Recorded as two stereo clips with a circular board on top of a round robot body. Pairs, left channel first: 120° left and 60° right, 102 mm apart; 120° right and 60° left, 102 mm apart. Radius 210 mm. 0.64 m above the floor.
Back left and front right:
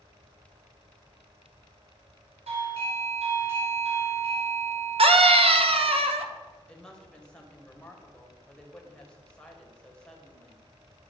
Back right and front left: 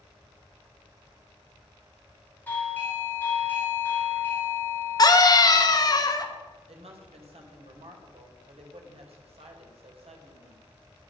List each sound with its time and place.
2.5 s a doorbell: 50° right, 5.5 m
5.0 s a scream: 70° right, 2 m
6.7 s a woman speaking: 40° left, 3.5 m